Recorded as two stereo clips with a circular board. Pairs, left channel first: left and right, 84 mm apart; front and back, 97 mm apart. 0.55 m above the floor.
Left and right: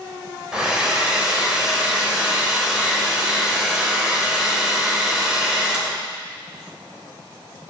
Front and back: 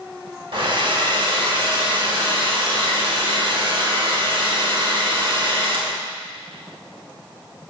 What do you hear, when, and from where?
0.5 s a hair dryer: 170° right, 2.5 m